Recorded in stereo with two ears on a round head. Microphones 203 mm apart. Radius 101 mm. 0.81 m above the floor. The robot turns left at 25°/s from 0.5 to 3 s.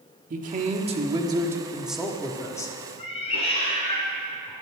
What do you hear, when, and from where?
0.3 s a man speaking: 140° right, 1.3 m; by 2.8 s 160° left, 1.3 m
3.0 s a cat meowing: 25° left (ahead or behind), 2.5 m